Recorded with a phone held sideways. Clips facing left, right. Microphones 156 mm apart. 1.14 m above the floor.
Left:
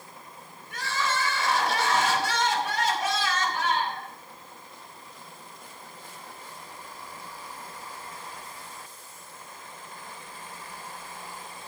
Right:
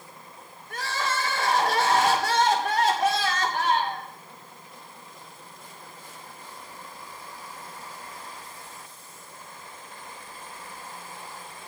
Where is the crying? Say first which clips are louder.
Even; 55° right (ahead or behind), 2.5 m.